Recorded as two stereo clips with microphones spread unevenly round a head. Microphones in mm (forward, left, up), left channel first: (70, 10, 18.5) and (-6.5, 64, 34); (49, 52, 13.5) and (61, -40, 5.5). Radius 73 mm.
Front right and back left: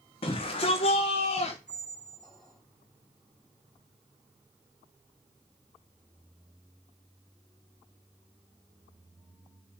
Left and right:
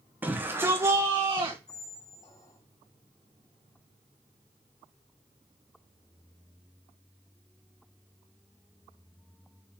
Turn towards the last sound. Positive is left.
turn(degrees=55)